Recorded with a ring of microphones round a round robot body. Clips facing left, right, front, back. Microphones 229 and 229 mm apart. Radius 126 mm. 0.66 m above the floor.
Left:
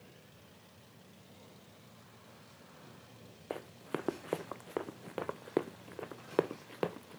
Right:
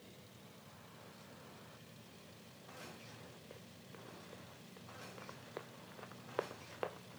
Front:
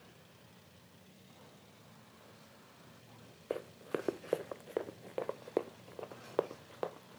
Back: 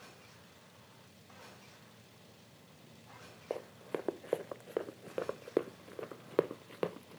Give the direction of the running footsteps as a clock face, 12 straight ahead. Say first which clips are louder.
Left 16 dB, front 1 dB; 10 o'clock.